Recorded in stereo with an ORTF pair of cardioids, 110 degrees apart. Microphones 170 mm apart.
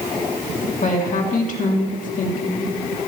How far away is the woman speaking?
About 2.5 m.